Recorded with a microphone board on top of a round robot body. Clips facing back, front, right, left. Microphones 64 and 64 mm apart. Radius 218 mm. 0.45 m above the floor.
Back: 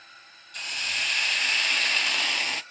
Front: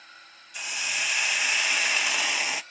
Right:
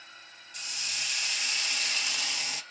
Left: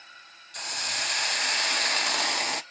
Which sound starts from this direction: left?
A hiss, at 0.5 s.